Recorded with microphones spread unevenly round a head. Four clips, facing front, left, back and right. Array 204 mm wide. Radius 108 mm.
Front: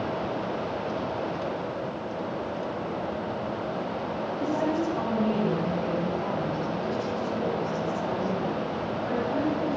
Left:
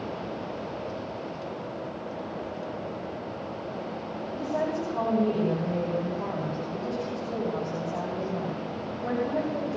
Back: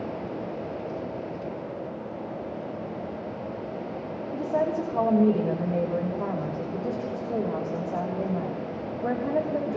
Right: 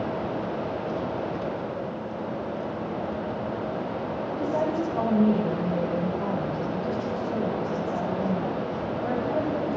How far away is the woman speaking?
About 7 m.